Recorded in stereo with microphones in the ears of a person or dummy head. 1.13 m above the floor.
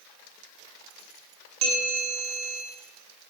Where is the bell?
25° right (ahead or behind), 4 m.